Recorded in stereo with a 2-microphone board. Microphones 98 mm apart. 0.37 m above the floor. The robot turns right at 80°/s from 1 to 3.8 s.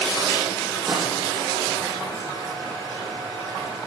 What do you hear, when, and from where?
0.9 s a snare drum: 5° right (ahead or behind), 5 m; by 1.1 s 5° left (ahead or behind), 5 m